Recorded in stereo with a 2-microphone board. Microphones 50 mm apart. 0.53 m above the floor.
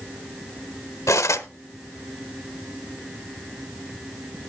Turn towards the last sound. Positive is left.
turn(degrees=75)  # may be behind; listen again after turning